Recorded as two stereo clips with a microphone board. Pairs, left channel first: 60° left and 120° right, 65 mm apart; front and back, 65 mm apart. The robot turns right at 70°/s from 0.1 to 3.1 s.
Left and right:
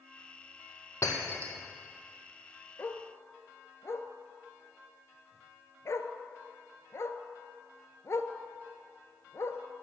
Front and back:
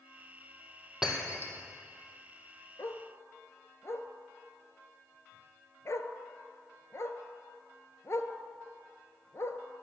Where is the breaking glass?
100° left, 2 m; by 1.5 s 135° left, 2 m.